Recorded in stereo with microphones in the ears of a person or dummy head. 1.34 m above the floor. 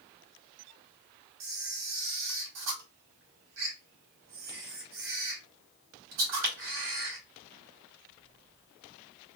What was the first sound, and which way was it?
A camera shutter, 80° right.